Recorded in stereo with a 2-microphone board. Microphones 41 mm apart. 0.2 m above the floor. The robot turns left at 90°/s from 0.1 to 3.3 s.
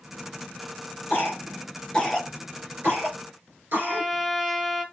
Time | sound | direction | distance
1.1 | a cough | 70° left (ahead or behind) | 3 m
3.7 | a trumpet | 5° left (ahead or behind) | 1.6 m